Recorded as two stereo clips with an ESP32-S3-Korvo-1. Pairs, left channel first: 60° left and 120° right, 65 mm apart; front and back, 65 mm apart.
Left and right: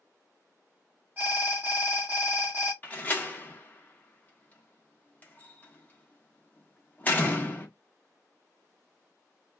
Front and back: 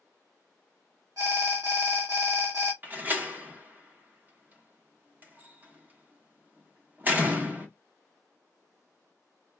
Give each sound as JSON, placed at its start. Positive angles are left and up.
{"t": 1.2, "sound": "an alarm", "azimuth_deg": -175, "distance_m": 1.6}
{"t": 2.8, "sound": "a door slam", "azimuth_deg": 120, "distance_m": 0.9}